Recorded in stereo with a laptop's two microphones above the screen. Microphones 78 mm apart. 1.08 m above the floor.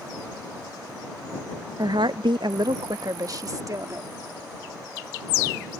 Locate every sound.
1.8 s a woman speaking: 55° right (ahead or behind); by 4.1 s 45° right (ahead or behind)